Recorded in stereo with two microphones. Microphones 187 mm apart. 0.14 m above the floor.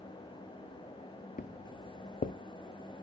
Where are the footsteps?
50° left (ahead or behind), 0.5 m.